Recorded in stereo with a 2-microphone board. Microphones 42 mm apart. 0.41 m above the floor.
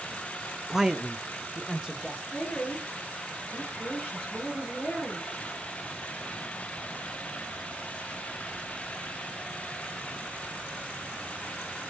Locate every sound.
0.7 s a man speaking: 10° right (ahead or behind), 0.7 m
2.3 s a woman speaking: 25° left (ahead or behind), 7.5 m